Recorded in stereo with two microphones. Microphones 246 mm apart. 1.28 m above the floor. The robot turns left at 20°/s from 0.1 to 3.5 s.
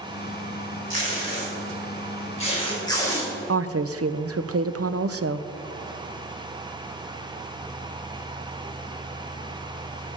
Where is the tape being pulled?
55° left (ahead or behind), 4.5 m; by 3.3 s 10° left (ahead or behind), 4.5 m.